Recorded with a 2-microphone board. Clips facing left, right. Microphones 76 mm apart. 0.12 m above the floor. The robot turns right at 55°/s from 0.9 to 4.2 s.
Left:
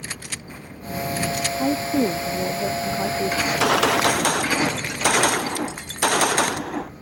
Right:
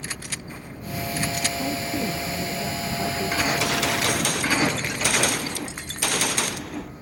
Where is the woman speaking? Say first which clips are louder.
Left 9 dB; 50° left; by 3.3 s 145° left.